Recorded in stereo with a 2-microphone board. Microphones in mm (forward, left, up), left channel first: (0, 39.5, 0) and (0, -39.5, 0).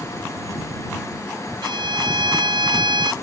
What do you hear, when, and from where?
1.6 s a violin: 85° right